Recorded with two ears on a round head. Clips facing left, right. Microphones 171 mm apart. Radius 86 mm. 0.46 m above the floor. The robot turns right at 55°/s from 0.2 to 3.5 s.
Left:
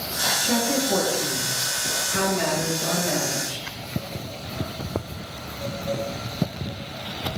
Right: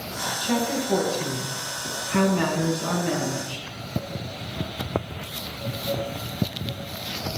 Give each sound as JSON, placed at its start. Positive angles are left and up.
{"t": 0.4, "sound": "a woman speaking", "azimuth_deg": 160, "distance_m": 4.0}